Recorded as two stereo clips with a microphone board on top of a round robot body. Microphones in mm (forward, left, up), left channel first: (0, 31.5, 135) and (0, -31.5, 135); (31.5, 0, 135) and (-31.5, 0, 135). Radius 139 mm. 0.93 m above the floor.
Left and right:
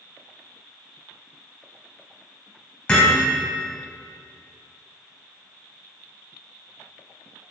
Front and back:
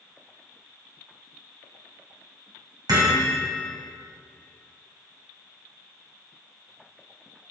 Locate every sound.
2.9 s hammering: 165° left, 5.5 m